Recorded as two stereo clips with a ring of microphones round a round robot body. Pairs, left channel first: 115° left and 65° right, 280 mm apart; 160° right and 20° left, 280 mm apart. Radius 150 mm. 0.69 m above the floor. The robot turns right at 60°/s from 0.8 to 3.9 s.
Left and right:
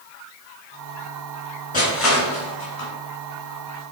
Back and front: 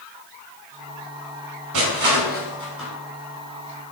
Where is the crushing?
45° left, 2.5 m; by 2.9 s 115° left, 2.5 m.